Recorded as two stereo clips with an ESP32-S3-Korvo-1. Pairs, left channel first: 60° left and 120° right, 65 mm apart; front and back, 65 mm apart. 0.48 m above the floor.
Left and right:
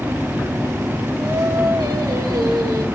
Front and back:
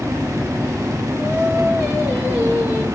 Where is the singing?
110° right, 9 m.